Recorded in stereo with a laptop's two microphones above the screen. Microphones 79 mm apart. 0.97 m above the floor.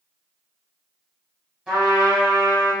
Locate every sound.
1.7 s a trumpet: 15° right (ahead or behind), 1.3 m